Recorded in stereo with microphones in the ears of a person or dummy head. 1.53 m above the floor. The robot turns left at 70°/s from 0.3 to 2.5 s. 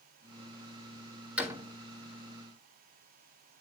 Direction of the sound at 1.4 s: 5° right (ahead or behind).